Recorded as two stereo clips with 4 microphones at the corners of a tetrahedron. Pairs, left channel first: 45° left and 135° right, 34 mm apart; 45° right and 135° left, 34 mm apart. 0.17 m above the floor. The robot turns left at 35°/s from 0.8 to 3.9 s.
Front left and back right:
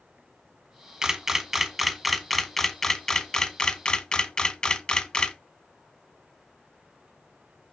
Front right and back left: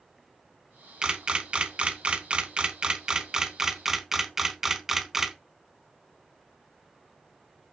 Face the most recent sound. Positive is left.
turn(degrees=70)